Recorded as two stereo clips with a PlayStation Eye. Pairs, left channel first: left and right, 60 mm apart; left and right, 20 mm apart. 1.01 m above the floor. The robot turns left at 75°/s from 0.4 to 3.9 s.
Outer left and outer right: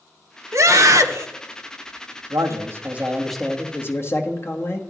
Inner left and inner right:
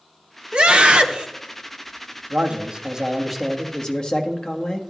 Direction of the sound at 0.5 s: 65° right.